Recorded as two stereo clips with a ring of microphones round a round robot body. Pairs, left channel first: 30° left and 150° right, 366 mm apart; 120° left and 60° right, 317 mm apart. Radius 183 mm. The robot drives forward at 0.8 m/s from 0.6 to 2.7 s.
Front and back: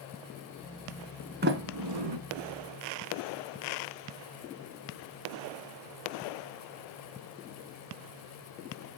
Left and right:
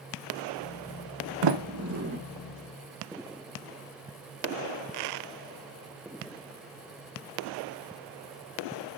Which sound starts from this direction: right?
A sliding door, at 1.4 s.